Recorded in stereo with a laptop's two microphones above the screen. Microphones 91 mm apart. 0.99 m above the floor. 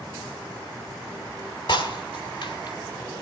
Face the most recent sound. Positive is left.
turn(degrees=60)  # may be behind; listen again after turning